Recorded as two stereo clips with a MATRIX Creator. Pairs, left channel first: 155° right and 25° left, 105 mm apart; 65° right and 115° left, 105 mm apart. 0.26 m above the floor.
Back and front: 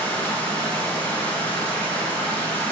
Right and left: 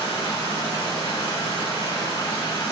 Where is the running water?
90° right, 1.0 m.